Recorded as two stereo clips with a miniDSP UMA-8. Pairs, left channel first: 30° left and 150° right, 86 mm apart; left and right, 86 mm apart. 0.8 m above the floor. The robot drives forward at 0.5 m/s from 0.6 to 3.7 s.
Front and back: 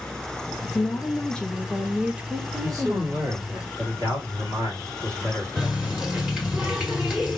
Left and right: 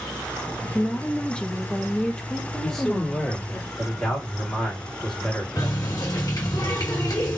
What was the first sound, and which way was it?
A woman speaking, 20° left.